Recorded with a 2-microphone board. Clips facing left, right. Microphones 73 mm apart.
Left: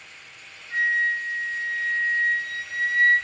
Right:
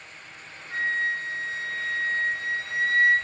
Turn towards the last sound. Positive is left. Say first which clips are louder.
# left 4 dB
turn(degrees=0)  # may be behind; listen again after turning